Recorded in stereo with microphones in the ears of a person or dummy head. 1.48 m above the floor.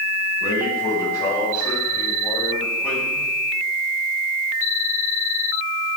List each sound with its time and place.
0.4 s a man speaking: 25° left (ahead or behind), 5 m; by 3.3 s 10° left (ahead or behind), 6 m